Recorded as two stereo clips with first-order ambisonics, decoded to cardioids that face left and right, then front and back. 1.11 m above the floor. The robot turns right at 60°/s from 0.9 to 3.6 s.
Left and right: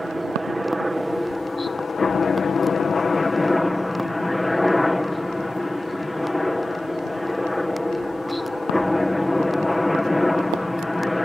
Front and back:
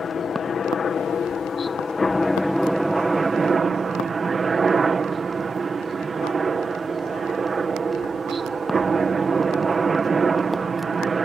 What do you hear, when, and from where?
0.0 s a helicopter: 5° right; by 11.3 s 155° left